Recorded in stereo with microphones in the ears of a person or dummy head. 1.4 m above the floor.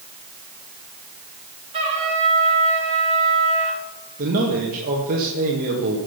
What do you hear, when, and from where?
1.7 s a trumpet: 30° right (ahead or behind), 4 m
4.2 s a man speaking: 45° right (ahead or behind), 1.8 m